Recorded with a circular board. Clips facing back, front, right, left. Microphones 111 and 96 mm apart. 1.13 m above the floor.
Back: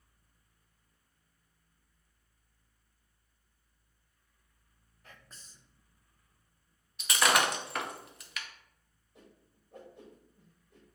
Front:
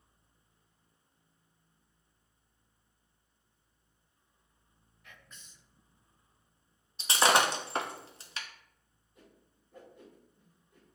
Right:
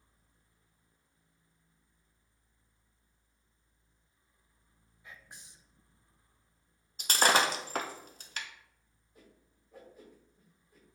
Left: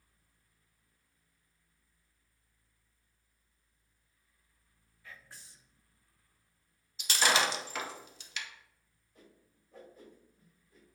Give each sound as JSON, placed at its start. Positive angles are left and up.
{"t": 5.0, "sound": "whispering", "azimuth_deg": -150, "distance_m": 0.5}
{"t": 7.0, "sound": "breaking glass", "azimuth_deg": -55, "distance_m": 0.6}
{"t": 9.2, "sound": "a whoosh", "azimuth_deg": -170, "distance_m": 1.7}